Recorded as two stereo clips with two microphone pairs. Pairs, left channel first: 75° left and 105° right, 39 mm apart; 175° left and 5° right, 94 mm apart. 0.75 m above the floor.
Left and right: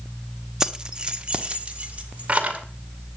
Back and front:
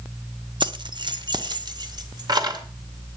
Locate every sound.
0.6 s keys jangling: 30° right, 0.8 m; by 2.6 s 45° right, 2 m